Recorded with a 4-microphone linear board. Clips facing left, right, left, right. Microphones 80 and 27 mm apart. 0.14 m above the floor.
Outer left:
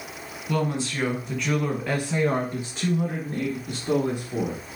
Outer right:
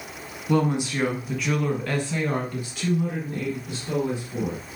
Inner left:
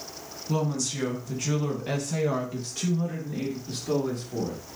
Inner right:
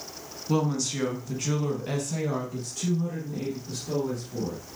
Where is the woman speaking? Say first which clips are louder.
Outer right 4 dB, inner right 2 dB; 25° right (ahead or behind), 1.4 m; by 4.6 s 50° left (ahead or behind), 2.5 m.